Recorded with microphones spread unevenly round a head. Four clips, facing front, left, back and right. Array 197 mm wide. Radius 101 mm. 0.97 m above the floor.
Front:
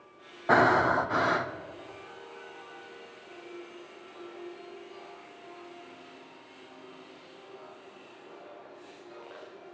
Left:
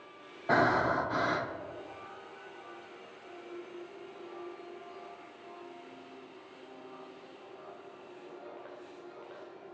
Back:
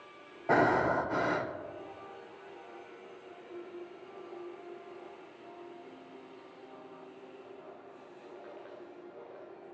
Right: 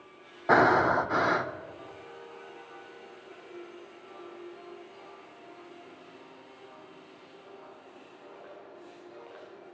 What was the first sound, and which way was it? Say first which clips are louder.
Breathing: right 5 dB, front 4 dB; 80° right.